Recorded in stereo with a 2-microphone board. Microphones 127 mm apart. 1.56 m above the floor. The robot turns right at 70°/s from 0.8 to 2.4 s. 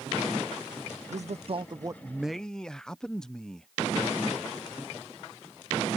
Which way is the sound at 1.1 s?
85° right.